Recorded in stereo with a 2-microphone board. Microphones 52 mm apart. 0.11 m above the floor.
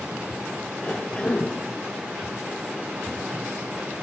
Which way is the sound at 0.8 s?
15° left (ahead or behind).